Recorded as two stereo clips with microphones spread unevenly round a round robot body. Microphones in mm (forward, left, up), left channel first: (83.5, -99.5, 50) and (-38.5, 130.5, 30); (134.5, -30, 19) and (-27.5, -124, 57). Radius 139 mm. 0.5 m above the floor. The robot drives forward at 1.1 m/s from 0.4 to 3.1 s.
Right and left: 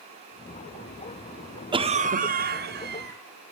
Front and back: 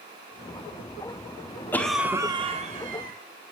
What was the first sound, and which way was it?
A cough, 75° left.